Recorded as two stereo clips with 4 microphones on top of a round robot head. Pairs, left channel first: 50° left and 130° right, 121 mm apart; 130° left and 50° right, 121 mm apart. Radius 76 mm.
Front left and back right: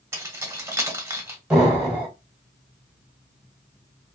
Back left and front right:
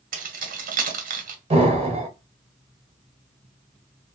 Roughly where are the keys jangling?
Ahead right.